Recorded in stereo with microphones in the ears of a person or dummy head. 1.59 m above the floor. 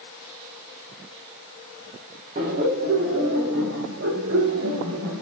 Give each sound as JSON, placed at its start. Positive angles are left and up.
{"t": 2.4, "sound": "laughter", "side_deg": -40, "distance_m": 2.0}